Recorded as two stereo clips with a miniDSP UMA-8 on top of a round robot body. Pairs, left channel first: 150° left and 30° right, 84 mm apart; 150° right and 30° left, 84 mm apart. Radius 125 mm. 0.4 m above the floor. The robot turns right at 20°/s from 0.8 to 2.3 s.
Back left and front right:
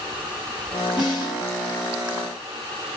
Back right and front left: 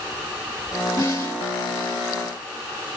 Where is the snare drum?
110° right, 2.5 m; by 1.4 s 100° right, 2.5 m.